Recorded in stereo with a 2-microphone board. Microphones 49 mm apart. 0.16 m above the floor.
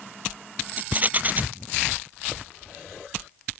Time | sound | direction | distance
0.8 | a rattle | 35° right (ahead or behind) | ?